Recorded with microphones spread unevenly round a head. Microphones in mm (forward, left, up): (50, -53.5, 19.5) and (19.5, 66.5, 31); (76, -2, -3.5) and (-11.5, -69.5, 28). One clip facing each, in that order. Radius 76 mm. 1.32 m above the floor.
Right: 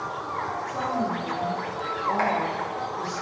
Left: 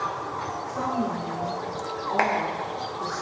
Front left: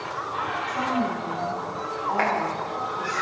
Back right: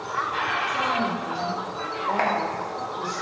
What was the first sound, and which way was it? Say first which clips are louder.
A woman speaking: left 1 dB, front left 2 dB; 105° right.